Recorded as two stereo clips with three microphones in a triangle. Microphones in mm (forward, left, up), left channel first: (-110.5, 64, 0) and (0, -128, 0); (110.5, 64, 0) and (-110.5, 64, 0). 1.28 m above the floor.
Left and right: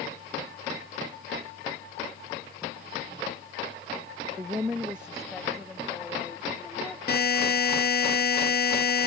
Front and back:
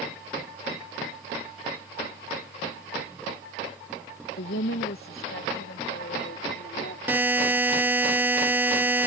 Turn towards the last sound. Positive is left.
turn(degrees=100)